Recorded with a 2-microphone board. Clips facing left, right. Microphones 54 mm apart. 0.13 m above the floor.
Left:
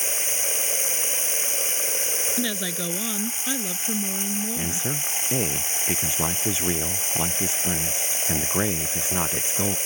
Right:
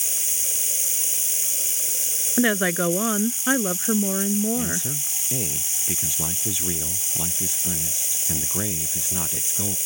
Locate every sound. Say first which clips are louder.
0.0 s running water: left 7 dB; 45° left (ahead or behind)
2.4 s a woman speaking: right 11 dB; 45° right (ahead or behind)
4.6 s a man speaking: right 1 dB; 30° left (ahead or behind)